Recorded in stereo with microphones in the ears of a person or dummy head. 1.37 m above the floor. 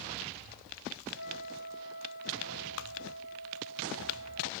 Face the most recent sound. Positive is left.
turn(degrees=65)  # may be behind; listen again after turning